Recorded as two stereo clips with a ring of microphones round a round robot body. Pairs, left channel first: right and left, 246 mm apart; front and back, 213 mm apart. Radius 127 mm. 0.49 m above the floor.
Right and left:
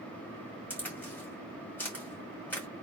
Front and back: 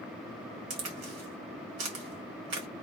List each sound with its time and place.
0.7 s a crack: 170° right, 1.5 m